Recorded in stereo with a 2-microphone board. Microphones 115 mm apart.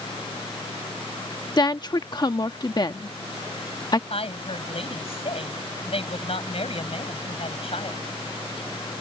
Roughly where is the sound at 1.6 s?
Left.